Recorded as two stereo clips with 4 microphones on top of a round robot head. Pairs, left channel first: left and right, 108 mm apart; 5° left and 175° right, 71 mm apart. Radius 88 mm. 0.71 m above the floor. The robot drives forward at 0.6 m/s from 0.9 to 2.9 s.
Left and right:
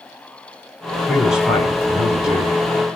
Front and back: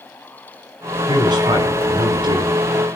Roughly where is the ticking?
No ticking in this recording.